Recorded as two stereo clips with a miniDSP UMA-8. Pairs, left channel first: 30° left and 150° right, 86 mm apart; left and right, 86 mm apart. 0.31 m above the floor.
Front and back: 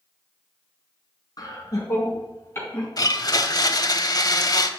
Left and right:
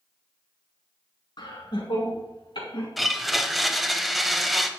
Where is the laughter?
70° left, 4 m; by 2.9 s 95° left, 4 m.